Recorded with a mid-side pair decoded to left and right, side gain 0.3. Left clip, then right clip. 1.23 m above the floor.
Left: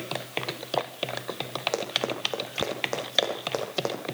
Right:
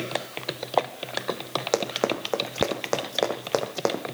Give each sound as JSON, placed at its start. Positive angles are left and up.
{"t": 1.7, "sound": "running footsteps", "azimuth_deg": -55, "distance_m": 4.0}